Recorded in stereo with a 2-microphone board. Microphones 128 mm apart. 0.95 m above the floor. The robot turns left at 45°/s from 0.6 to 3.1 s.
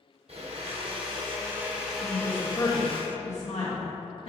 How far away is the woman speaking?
About 1.5 m.